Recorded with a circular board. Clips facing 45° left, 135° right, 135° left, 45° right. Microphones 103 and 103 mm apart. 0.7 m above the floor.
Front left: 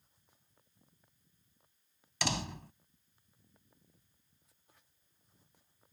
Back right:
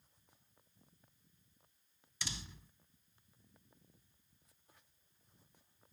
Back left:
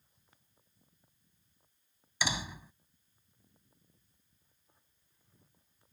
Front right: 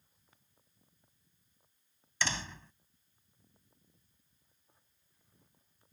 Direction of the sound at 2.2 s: 55° left.